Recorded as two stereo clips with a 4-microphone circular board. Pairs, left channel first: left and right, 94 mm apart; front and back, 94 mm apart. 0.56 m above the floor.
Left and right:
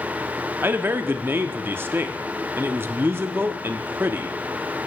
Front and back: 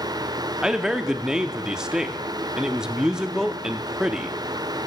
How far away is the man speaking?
About 0.6 m.